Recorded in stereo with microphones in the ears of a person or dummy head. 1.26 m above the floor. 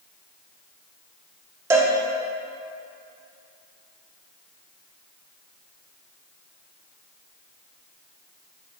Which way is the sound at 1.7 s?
15° right (ahead or behind).